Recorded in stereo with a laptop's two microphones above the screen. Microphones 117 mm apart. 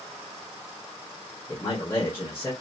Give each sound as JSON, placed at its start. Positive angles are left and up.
{"t": 1.5, "sound": "a man speaking", "side_deg": 20, "distance_m": 1.1}